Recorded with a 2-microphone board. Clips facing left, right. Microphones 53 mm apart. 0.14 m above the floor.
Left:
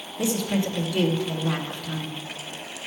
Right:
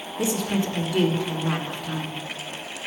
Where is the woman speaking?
20° right (ahead or behind), 1.4 m.